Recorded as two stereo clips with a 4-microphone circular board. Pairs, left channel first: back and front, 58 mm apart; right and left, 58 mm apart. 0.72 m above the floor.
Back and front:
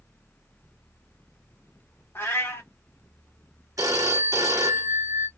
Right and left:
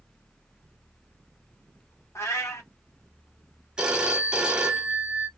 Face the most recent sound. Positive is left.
turn(degrees=15)